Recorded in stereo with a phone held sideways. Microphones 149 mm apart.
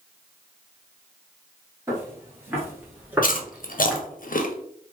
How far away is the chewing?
About 0.6 m.